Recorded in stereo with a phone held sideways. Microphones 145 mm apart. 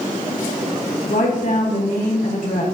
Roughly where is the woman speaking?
Left.